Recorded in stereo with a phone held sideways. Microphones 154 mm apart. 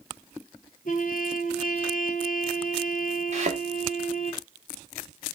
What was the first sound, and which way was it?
A trumpet, 60° left (ahead or behind).